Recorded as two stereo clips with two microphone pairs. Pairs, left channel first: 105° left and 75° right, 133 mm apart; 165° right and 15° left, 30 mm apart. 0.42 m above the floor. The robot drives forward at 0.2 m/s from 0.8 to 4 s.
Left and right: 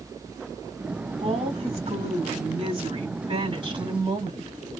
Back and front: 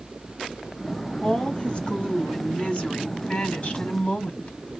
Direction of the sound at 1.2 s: 110° right.